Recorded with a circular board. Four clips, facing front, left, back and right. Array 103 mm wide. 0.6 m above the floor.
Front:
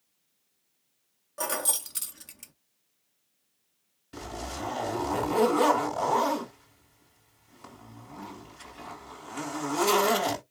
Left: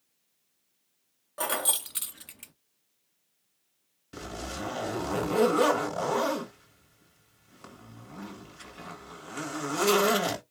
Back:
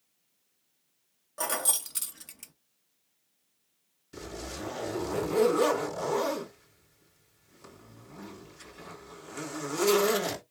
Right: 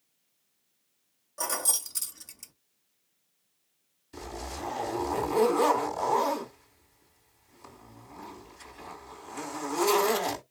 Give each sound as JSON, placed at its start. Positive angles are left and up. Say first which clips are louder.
{"t": 1.4, "sound": "keys jangling", "louder": "left 3 dB, front 1 dB", "azimuth_deg": 95, "distance_m": 0.6}
{"t": 4.1, "sound": "a zipper", "louder": "left 1 dB, front 3 dB", "azimuth_deg": 70, "distance_m": 3.5}